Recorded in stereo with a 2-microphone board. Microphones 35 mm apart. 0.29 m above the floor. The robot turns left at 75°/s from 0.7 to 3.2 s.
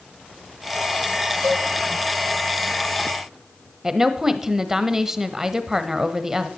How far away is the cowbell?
About 3 m.